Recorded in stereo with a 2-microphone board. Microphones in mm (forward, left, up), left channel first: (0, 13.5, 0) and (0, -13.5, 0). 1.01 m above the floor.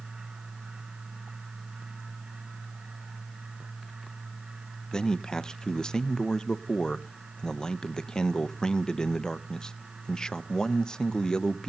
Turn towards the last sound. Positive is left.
turn(degrees=25)  # may be behind; listen again after turning